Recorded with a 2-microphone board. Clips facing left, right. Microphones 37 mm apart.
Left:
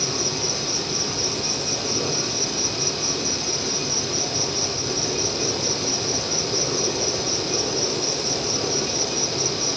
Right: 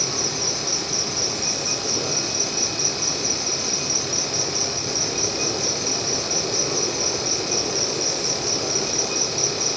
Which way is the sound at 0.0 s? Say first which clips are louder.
Left 1 dB; 25° left (ahead or behind).